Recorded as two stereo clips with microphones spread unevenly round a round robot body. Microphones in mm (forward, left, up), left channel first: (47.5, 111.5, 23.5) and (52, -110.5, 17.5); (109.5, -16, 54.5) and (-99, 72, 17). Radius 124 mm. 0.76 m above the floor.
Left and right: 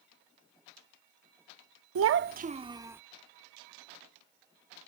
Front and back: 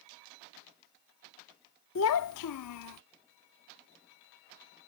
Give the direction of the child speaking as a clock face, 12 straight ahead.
2 o'clock.